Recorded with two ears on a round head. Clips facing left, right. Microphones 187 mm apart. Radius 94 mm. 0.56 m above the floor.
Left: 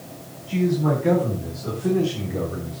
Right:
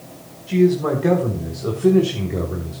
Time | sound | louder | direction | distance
0.5 | a man speaking | right 5 dB | 70° right (ahead or behind) | 4 m